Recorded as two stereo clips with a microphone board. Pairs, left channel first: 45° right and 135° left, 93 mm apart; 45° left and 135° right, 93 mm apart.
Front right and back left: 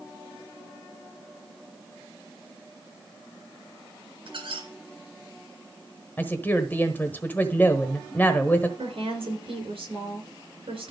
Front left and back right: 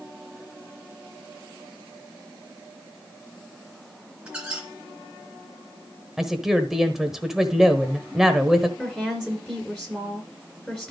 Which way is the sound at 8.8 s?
125° left.